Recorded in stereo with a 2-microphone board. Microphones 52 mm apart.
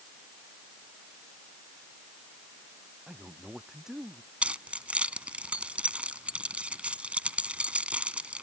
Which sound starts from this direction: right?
Keys jangling, at 4.4 s.